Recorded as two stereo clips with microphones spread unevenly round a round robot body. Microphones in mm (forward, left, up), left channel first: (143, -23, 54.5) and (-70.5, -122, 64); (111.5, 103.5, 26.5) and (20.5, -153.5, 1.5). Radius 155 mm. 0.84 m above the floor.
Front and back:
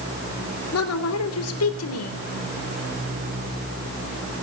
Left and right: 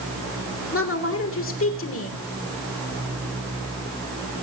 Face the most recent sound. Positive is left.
turn(degrees=30)